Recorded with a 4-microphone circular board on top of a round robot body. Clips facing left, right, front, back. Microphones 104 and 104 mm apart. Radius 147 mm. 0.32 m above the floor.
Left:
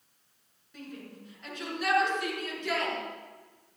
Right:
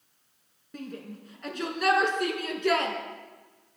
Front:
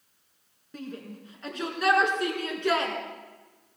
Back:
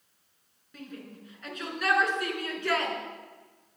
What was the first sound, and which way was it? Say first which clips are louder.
A shout: right 5 dB, front 4 dB; 50° right.